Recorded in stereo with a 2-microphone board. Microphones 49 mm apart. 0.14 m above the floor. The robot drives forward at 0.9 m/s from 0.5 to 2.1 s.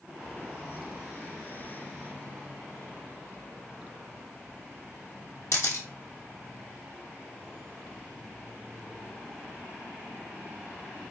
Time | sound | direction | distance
5.5 | a camera shutter | 65° left (ahead or behind) | 1.8 m